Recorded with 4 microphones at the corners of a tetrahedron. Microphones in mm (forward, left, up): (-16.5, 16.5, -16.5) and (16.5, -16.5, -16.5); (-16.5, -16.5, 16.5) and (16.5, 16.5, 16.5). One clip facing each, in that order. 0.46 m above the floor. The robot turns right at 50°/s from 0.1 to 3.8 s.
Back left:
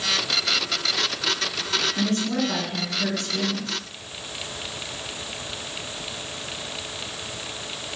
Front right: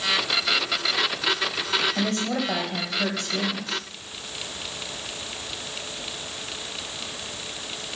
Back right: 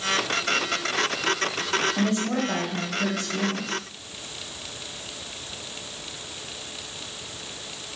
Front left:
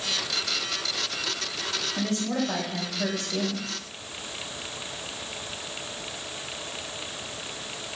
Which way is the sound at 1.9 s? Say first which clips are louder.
Back left 1 dB, back right 3 dB; 60° right.